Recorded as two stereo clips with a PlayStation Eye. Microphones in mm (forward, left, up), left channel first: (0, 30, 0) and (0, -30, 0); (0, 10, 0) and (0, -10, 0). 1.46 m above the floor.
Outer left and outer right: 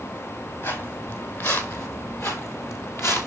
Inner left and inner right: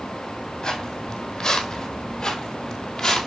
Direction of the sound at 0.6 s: 45° left (ahead or behind).